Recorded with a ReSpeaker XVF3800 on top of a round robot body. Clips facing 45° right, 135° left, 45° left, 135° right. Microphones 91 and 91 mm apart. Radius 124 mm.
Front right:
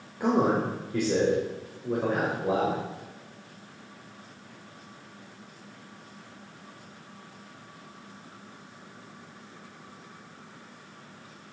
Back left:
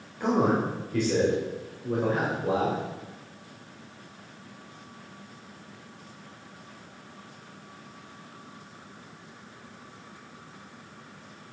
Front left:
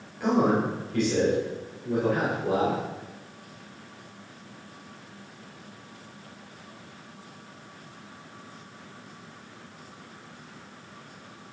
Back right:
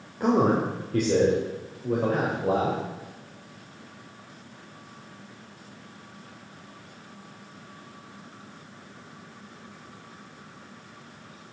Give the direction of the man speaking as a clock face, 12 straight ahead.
4 o'clock.